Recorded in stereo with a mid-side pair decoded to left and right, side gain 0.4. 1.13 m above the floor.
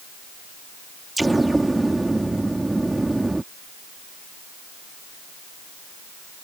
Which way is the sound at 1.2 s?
15° right.